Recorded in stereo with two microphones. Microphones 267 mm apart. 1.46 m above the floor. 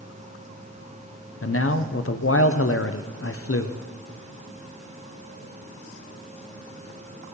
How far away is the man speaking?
About 0.7 m.